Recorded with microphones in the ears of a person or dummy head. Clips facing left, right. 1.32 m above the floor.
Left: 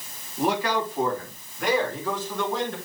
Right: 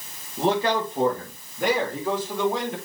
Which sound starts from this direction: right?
A man speaking, at 0.4 s.